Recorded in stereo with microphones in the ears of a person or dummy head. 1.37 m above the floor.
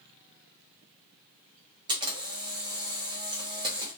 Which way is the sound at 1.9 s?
25° right (ahead or behind).